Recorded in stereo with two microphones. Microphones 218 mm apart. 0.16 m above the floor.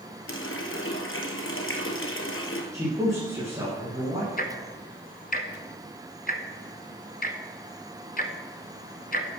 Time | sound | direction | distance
0.3 | a running tap | 70° left (ahead or behind) | 2.0 m
2.7 | a man speaking | 15° right (ahead or behind) | 7 m
4.4 | ticking | 40° left (ahead or behind) | 1.1 m